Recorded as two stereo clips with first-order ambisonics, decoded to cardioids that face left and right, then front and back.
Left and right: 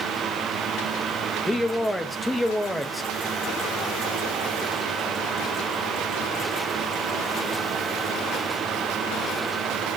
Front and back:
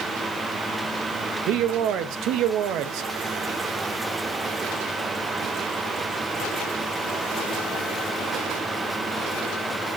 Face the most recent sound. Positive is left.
turn(degrees=170)